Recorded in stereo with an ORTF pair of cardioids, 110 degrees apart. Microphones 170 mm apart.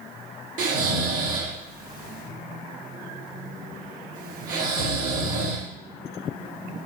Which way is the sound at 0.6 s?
55° right.